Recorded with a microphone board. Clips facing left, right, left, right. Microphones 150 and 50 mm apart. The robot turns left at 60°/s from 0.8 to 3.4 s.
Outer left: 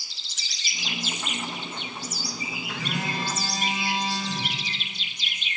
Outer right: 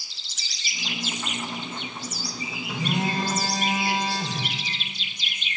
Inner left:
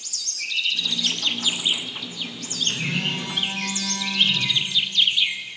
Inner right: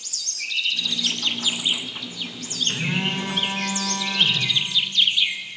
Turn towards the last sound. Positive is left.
turn(degrees=-50)